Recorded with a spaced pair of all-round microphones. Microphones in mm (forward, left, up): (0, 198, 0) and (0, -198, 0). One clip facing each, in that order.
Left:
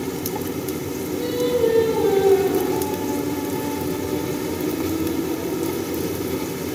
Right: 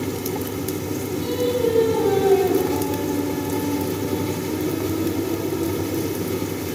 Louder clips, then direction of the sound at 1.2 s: Left 2 dB; 75° right (ahead or behind).